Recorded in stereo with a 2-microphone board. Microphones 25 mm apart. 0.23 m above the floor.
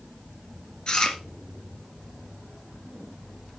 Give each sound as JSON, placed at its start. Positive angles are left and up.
{"t": 0.9, "sound": "chewing", "side_deg": 25, "distance_m": 2.5}